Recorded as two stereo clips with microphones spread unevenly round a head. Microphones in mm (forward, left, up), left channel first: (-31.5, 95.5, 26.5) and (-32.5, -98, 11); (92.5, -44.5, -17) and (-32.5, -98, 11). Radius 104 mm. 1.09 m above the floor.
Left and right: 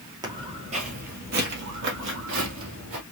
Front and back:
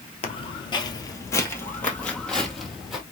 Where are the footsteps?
20° right, 1.3 m; by 3.0 s 75° right, 2 m.